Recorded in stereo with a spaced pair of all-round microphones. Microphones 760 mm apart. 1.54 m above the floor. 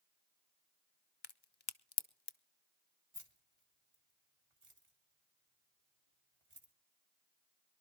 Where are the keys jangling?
45° right (ahead or behind), 2 m.